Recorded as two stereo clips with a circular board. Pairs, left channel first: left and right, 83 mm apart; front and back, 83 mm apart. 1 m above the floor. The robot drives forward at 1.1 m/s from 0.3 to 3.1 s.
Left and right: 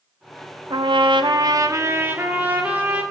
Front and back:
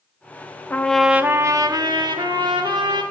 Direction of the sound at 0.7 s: 65° right.